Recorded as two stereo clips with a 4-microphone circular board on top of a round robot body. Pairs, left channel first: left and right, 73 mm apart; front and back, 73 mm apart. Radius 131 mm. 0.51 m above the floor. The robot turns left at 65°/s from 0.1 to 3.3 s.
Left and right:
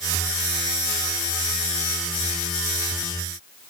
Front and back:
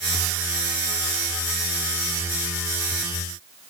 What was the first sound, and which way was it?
Only background noise.